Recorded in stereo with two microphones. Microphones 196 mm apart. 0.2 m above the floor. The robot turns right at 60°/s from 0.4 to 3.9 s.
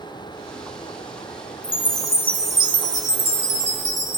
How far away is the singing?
I don't hear singing.